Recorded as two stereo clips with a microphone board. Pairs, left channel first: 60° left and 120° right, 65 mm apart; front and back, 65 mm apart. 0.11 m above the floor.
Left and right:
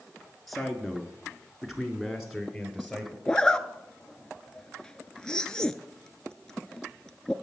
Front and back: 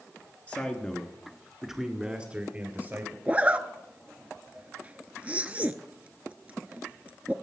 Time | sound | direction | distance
0.5 | a man speaking | 20° right | 1.6 m
3.3 | a zipper | 130° left | 0.5 m